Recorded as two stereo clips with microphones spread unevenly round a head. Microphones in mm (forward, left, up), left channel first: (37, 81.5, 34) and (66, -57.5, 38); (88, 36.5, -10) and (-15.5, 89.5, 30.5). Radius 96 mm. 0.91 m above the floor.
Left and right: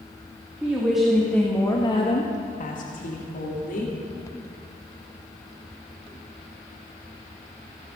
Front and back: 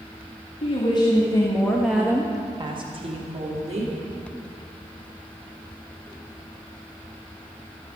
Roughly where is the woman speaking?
Ahead.